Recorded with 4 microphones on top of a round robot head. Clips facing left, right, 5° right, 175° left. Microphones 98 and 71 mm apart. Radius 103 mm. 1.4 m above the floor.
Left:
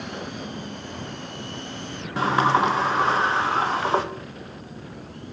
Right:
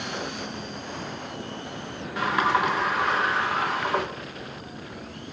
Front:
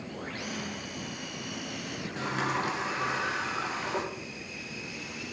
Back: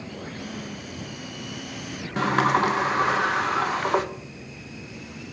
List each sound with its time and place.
2.2 s a sliding door: 145° left, 1.0 m